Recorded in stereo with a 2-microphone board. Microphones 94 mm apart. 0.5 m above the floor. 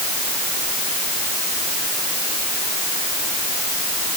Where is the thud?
I don't hear a thud.